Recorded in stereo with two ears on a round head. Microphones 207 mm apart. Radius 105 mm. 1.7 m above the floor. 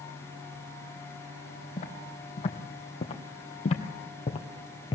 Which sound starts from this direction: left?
Footsteps, at 1.8 s.